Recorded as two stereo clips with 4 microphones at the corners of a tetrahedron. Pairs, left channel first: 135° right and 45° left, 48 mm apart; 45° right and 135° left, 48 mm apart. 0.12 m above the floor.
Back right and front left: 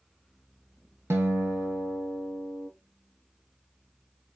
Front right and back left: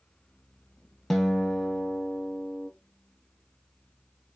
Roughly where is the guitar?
Ahead left.